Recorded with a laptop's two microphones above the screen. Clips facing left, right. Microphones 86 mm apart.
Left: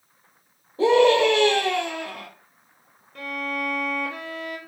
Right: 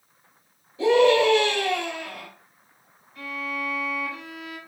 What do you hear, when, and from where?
0.8 s a scream: 40° left (ahead or behind), 3.5 m
3.1 s a violin: 70° left (ahead or behind), 4.5 m